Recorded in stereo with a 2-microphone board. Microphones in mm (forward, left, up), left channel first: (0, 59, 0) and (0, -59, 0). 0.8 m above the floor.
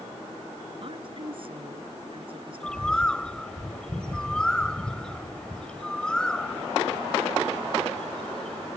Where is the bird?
5° left (ahead or behind).